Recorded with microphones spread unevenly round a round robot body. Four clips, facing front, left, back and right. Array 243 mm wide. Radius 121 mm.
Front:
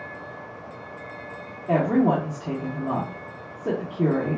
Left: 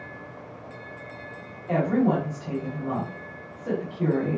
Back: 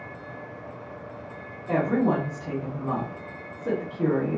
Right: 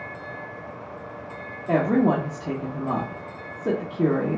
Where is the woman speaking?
65° right, 1.2 m.